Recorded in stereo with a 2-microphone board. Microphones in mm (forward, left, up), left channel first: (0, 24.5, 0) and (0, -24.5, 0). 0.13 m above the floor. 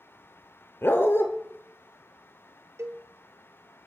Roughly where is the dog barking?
Left.